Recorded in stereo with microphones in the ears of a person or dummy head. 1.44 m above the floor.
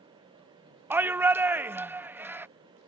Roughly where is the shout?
Centre.